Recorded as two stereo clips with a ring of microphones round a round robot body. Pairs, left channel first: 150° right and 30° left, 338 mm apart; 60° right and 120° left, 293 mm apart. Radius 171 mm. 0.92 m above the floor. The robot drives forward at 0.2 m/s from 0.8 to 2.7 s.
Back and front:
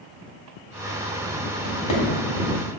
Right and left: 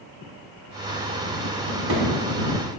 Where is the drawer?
165° left, 1.7 m.